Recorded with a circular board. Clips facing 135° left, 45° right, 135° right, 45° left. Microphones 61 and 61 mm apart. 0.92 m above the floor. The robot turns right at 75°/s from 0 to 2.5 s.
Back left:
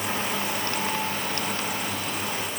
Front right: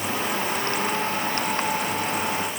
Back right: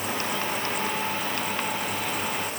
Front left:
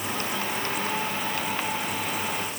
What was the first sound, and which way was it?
Only background noise.